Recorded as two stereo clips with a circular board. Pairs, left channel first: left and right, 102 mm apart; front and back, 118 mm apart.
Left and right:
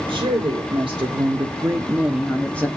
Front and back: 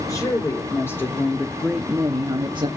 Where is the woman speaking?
60° right, 1.9 m; by 2.7 s 160° left, 1.0 m.